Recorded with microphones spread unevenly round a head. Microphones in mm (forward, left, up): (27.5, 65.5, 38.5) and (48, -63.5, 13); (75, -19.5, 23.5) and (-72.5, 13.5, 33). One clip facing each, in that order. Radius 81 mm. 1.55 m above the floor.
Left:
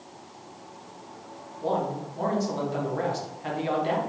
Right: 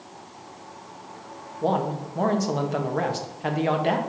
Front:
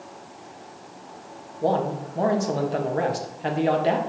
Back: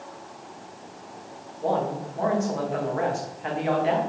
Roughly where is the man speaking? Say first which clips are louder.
Right 3 dB, front 2 dB; ahead right.